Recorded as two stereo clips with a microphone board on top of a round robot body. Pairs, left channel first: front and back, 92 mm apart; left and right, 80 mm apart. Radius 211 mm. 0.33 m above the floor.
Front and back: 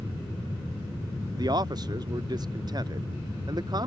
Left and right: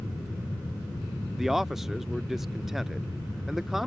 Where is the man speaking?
175° right.